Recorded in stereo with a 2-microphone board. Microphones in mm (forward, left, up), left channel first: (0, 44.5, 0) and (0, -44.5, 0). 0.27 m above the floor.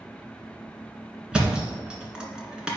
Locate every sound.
1.3 s a thud: 10° right (ahead or behind), 1.6 m